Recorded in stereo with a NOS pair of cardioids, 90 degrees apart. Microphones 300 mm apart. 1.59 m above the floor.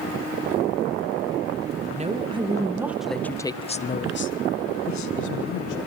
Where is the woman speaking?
20° right, 2.5 m; by 5.8 s 75° left, 2 m.